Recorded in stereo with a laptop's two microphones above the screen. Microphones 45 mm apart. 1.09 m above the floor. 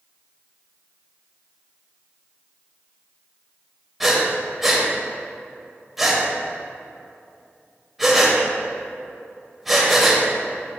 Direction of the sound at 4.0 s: Centre (ahead or behind).